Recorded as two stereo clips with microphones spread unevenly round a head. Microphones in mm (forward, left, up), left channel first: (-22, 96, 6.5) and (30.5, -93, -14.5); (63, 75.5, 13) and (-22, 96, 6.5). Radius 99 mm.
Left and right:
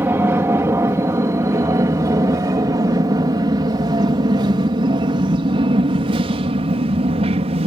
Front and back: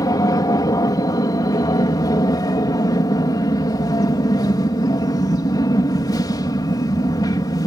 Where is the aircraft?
Straight ahead; by 7.7 s 35° right.